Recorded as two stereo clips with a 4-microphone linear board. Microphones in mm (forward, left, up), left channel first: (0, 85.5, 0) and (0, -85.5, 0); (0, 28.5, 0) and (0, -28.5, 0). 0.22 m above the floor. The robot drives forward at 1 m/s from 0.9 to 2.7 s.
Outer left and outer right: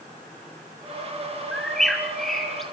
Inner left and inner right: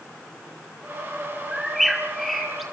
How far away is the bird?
About 2.5 m.